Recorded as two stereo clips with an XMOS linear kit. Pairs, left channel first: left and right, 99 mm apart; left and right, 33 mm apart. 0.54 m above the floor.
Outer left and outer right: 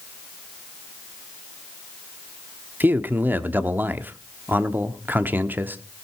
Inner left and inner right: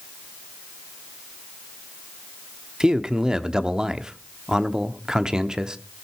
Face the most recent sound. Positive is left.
turn(degrees=-20)  # may be behind; listen again after turning